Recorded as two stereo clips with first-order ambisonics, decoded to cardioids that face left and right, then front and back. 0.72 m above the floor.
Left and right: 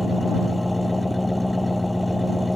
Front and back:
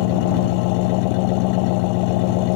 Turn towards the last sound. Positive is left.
turn(degrees=5)